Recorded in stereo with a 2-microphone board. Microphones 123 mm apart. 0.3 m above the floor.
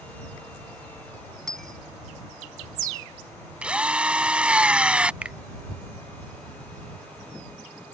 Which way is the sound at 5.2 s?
10° right (ahead or behind).